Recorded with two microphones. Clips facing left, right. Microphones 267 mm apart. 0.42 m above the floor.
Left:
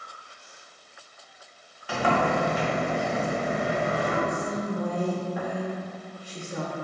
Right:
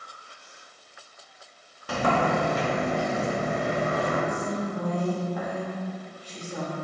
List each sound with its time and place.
1.9 s a sliding door: 45° right (ahead or behind), 0.8 m
4.3 s a woman speaking: 10° left (ahead or behind), 0.8 m